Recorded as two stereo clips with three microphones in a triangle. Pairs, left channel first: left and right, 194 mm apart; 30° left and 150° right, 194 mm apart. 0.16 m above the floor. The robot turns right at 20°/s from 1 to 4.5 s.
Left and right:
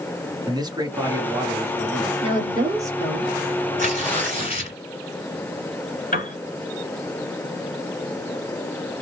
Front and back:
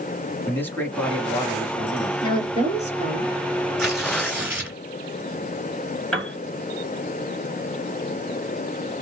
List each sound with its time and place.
0.5 s a man speaking: 40° right, 1.2 m; by 2.1 s 20° right, 1.2 m
2.2 s a woman speaking: 30° right, 2.5 m; by 3.3 s 10° right, 2.5 m
3.8 s tearing paper: 115° left, 2 m; by 4.8 s 130° left, 2 m
6.1 s a piano: 120° left, 1.8 m